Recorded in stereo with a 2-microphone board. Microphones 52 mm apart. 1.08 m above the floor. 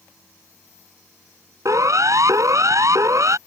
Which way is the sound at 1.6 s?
85° right.